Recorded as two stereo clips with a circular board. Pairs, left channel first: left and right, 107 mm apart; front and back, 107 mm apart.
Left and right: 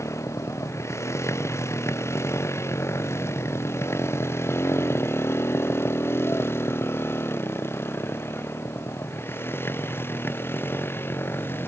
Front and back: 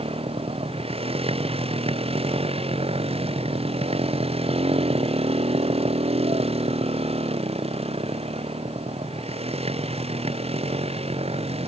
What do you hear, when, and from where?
0.0 s a motorcycle: 155° left; by 11.7 s 160° left